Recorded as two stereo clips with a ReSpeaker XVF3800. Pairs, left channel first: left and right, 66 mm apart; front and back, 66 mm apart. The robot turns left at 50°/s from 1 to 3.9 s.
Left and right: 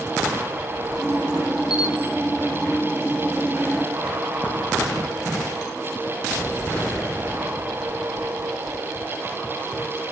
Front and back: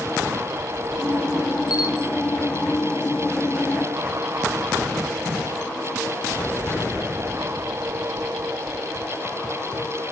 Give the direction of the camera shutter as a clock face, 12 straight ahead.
12 o'clock.